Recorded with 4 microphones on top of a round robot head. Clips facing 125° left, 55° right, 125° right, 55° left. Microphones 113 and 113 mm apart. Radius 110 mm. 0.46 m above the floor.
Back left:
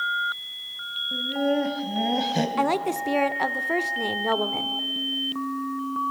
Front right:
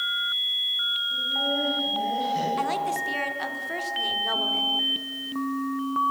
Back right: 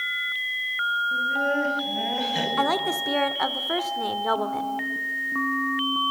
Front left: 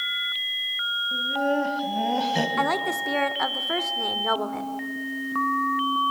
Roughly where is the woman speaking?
Behind left.